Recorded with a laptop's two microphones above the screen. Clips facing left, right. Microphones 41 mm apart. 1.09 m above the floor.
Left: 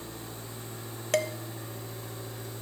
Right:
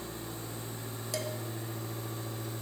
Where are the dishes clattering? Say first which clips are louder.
Left 9 dB; 60° left (ahead or behind), 0.6 m.